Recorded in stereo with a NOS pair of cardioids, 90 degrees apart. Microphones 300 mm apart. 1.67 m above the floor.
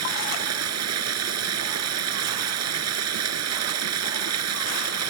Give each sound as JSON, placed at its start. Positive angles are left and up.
{"t": 0.0, "sound": "running water", "azimuth_deg": -65}